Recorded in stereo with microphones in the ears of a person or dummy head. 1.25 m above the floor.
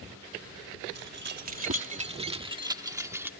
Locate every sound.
0.9 s keys jangling: 60° right (ahead or behind); by 3.3 s 10° right (ahead or behind)